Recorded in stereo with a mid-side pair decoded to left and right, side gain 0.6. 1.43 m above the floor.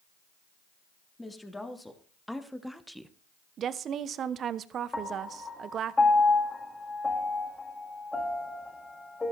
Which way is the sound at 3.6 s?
45° right.